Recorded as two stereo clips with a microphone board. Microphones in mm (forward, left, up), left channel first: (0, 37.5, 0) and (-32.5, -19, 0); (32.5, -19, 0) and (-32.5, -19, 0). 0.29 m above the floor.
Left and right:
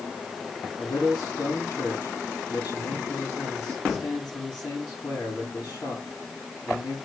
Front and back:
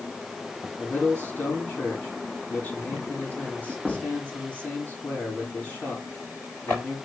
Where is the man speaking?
60° left, 5.5 m.